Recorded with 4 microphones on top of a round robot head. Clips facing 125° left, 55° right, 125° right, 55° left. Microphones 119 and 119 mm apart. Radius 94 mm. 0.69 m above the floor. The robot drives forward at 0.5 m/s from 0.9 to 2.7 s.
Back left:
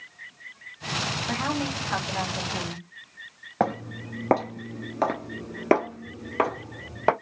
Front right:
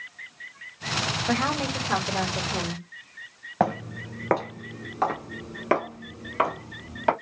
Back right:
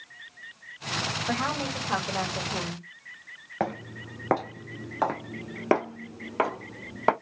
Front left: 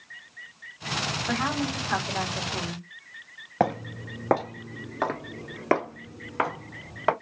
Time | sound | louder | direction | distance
1.3 | a woman speaking | front right 3 dB, front left 2 dB | 50° right | 1.4 m
3.6 | footsteps | front right 1 dB, front left 5 dB | 35° left | 0.7 m